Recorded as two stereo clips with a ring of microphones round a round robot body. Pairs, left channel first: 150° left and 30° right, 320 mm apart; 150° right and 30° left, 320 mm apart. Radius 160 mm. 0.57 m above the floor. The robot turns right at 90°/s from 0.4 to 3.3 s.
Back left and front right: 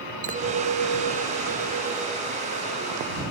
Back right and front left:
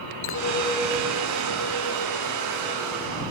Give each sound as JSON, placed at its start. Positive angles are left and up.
{"t": 0.2, "sound": "a clink", "azimuth_deg": -95}